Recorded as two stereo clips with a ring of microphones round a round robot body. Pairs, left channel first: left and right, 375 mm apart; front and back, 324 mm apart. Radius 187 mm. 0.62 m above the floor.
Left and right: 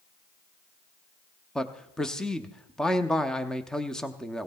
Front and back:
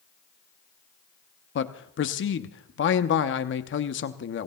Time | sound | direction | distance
1.6 | a man speaking | 5° left | 0.7 m